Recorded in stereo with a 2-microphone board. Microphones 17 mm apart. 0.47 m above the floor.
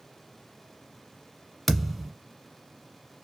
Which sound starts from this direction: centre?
A thud, at 1.7 s.